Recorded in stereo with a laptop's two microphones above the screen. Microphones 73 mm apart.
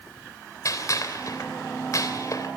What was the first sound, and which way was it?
A gunshot, 50° left (ahead or behind).